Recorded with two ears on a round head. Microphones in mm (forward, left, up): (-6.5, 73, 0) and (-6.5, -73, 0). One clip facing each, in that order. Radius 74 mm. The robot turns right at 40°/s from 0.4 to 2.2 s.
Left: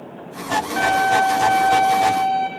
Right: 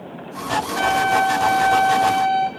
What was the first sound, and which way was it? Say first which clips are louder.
A violin: left 1 dB; 125° left.